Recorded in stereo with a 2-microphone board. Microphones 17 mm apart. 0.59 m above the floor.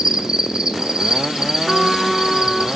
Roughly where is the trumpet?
Centre.